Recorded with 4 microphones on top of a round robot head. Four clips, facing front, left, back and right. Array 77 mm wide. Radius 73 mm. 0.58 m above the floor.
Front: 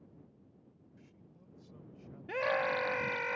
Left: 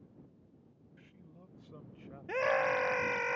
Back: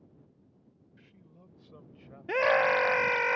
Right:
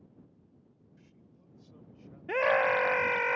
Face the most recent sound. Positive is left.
turn(degrees=-155)